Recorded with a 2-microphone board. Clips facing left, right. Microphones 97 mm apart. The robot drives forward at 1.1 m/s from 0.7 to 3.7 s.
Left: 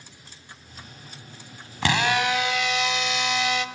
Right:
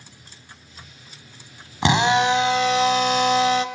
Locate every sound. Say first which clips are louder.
1.8 s a drill: right 5 dB; 20° right (ahead or behind), 1.7 m; by 3.6 s 35° right (ahead or behind), 1.1 m